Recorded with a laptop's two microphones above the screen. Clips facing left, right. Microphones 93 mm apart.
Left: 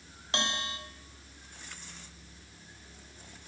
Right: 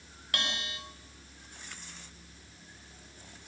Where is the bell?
25° left (ahead or behind), 4.5 m.